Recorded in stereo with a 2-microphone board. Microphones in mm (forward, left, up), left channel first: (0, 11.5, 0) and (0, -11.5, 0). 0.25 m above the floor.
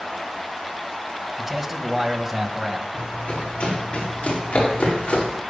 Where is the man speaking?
15° right (ahead or behind), 1.7 m.